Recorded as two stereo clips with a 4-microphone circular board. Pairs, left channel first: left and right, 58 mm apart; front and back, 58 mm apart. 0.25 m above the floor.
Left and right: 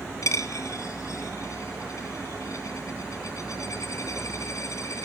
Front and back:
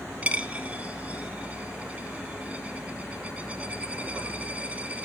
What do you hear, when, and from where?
0.2 s a dropped coin: 110° left, 1.1 m